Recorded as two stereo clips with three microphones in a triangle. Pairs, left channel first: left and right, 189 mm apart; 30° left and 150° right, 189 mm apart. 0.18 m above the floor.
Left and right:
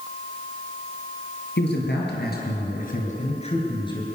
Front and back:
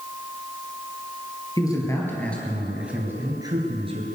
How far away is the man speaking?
About 4 m.